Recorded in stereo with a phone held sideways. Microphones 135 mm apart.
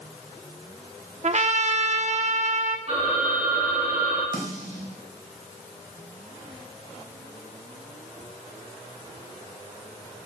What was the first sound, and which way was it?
A trumpet, 55° right (ahead or behind).